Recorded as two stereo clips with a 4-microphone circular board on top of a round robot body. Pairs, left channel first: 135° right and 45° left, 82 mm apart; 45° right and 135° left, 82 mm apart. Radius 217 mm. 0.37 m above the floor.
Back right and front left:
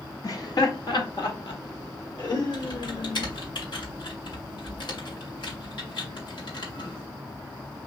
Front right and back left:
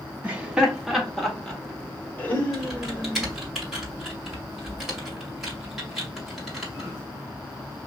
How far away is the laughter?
About 1.5 m.